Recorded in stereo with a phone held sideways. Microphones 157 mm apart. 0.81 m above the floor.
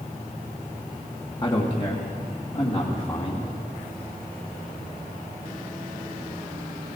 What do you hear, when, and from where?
1.4 s a man speaking: 30° left (ahead or behind), 1.2 m; by 3.4 s 40° left (ahead or behind), 2.5 m